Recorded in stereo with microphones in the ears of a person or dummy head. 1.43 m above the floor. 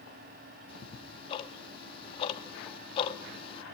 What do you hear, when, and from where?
0.7 s ticking: 30° left (ahead or behind), 1.2 m